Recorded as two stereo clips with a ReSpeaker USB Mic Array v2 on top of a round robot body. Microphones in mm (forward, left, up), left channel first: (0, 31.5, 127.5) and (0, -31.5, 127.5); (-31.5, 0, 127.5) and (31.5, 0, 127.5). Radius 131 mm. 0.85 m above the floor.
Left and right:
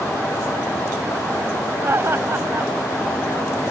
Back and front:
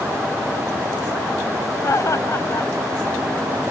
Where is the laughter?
140° right.